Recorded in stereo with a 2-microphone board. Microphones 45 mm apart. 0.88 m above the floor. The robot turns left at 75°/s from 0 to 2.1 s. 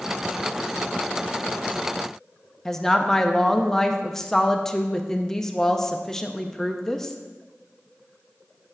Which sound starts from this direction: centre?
A woman speaking, at 2.6 s.